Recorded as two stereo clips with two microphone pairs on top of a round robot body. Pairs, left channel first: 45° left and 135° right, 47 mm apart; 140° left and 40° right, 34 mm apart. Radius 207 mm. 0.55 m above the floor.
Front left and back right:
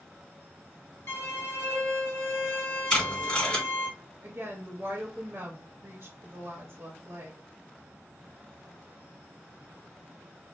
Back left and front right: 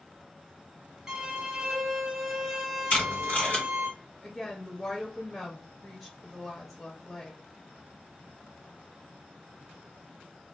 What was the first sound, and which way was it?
A violin, 30° left.